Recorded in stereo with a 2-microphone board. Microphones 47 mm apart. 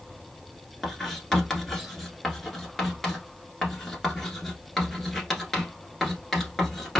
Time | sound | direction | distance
0.8 | writing | 5° left (ahead or behind) | 1.2 m